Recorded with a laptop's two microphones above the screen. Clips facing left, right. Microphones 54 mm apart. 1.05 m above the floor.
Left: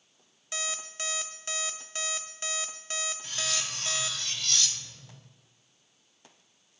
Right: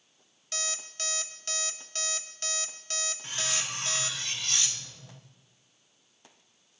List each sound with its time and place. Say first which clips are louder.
0.5 s an alarm clock: left 2 dB; 15° left (ahead or behind), 1.0 m
3.2 s cutlery clinking: even; 20° right (ahead or behind), 0.7 m